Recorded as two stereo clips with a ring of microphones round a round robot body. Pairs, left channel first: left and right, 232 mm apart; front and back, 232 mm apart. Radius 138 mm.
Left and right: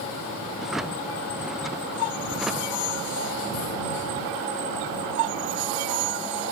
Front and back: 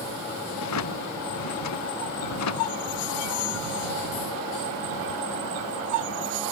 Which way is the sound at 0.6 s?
Straight ahead.